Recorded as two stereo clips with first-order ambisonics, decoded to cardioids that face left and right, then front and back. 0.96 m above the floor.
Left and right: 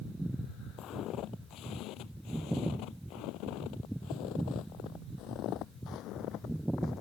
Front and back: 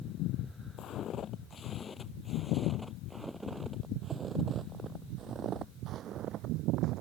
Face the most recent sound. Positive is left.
turn(degrees=135)